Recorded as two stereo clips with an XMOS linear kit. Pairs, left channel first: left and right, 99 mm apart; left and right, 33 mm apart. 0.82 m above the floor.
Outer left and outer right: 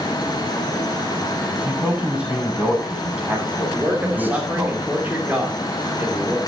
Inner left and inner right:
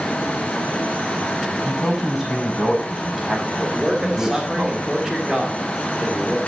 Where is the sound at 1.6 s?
10° right (ahead or behind), 7 m.